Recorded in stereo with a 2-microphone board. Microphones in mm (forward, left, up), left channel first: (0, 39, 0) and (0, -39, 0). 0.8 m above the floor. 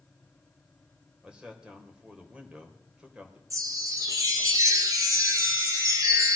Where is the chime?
50° right (ahead or behind), 2.5 m.